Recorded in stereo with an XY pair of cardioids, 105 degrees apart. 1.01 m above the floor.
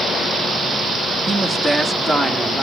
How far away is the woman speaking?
About 1.3 m.